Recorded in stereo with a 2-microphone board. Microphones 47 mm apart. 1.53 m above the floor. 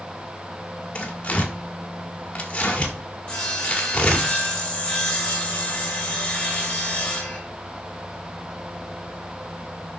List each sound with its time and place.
0.9 s tearing paper: 25° left (ahead or behind), 1.4 m
3.3 s sawing: 20° left (ahead or behind), 1.9 m